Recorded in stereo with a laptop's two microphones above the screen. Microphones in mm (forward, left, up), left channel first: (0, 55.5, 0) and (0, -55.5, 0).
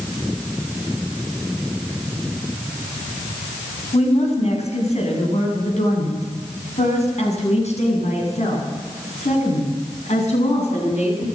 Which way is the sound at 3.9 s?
75° left (ahead or behind).